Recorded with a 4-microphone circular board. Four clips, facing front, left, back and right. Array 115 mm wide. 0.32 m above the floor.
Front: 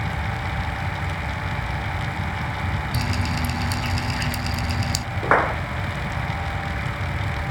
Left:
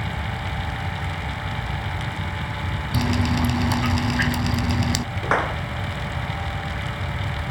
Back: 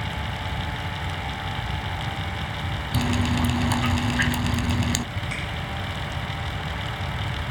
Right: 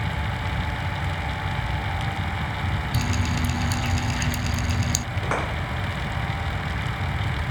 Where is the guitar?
No guitar in this recording.